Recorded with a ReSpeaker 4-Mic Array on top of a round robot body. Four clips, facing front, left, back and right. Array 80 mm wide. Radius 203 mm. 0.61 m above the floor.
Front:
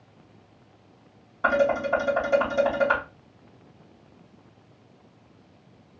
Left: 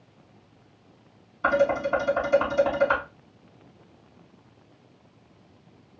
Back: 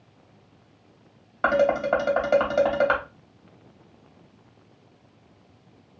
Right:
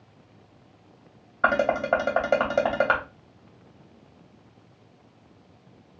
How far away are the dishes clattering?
About 2 m.